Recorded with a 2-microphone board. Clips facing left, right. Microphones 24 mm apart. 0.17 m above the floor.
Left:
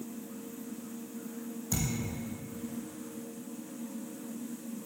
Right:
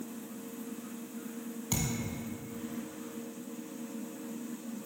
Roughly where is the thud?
Right.